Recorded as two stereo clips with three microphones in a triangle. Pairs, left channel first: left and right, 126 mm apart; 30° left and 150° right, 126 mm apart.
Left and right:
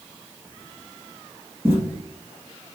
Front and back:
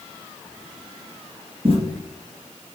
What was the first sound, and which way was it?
Footsteps, 155° right.